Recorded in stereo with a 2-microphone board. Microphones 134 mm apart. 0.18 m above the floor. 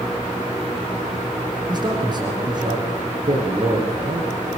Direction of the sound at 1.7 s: 35° right (ahead or behind).